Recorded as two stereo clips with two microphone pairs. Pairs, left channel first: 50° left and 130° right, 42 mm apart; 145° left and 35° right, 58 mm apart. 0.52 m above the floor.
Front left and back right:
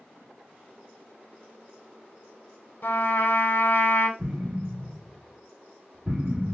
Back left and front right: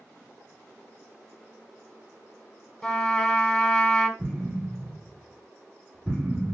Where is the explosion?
100° right, 1.7 m.